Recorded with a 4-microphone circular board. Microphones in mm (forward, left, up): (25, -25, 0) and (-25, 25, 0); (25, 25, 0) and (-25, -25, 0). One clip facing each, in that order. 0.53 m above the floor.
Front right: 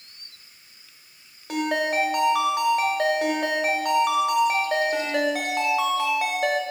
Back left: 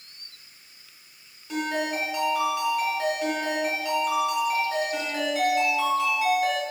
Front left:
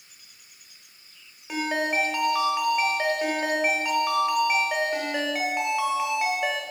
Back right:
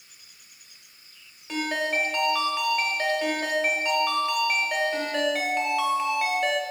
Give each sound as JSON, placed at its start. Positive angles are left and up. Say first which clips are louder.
{"t": 1.5, "sound": "a ringtone", "louder": "front right 4 dB, front left 1 dB", "azimuth_deg": -30, "distance_m": 1.3}